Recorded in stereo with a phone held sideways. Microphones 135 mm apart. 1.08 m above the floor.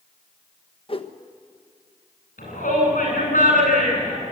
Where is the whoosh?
45° left (ahead or behind), 1.3 m.